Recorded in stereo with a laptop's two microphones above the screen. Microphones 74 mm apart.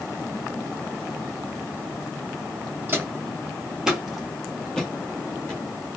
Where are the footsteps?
30° right (ahead or behind), 1.1 m; by 5.6 s 20° left (ahead or behind), 1.8 m.